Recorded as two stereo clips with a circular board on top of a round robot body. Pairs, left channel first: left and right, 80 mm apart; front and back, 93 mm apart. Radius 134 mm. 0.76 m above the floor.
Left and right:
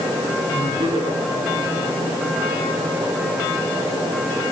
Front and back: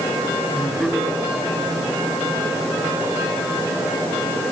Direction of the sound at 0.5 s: 90° right.